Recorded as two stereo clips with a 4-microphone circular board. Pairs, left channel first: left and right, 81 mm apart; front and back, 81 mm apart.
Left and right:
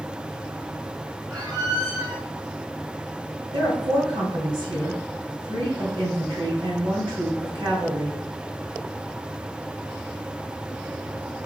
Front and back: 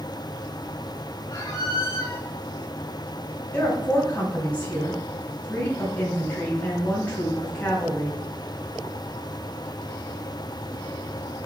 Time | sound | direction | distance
1.3 | a squeak | 50° right | 3.5 m
3.5 | a woman speaking | 70° right | 3 m